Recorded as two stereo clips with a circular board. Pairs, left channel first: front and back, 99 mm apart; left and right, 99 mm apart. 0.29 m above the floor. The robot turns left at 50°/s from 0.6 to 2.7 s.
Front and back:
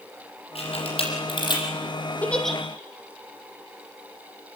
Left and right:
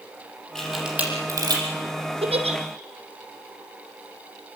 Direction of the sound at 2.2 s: 75° right.